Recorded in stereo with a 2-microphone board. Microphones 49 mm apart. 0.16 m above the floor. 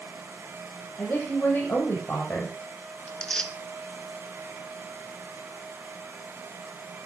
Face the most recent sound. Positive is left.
turn(degrees=20)  # may be behind; listen again after turning